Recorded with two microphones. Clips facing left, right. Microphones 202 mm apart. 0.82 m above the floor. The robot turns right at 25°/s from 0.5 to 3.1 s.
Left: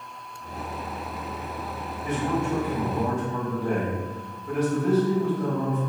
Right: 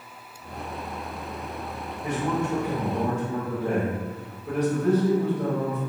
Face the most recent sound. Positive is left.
turn(degrees=-50)  # may be behind; listen again after turning